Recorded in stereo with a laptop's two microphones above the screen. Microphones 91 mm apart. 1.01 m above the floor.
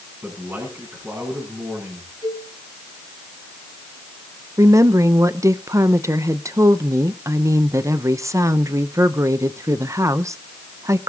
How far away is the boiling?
No boiling in this recording.